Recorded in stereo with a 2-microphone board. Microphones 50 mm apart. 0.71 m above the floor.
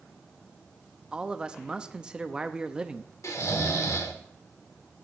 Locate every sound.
1.1 s a man speaking: 20° right (ahead or behind), 0.6 m
3.2 s snoring: 75° left (ahead or behind), 1.6 m